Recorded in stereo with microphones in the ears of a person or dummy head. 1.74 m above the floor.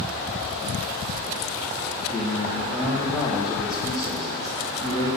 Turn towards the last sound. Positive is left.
turn(degrees=30)  # may be behind; listen again after turning